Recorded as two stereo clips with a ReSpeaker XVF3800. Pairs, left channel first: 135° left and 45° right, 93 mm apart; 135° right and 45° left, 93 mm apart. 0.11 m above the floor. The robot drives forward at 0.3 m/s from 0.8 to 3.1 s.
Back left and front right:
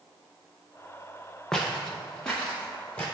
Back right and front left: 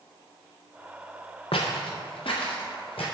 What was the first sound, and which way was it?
Footsteps, 140° right.